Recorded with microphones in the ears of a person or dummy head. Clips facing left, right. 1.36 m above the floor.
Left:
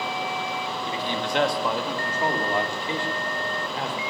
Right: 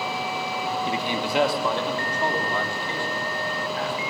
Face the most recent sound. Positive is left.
turn(degrees=25)  # may be behind; listen again after turning